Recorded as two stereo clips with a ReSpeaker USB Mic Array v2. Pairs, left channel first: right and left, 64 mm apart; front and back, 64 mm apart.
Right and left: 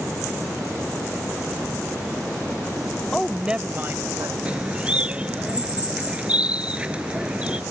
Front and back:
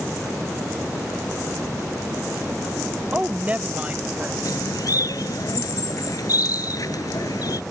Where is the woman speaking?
150° right; by 4.3 s 115° left.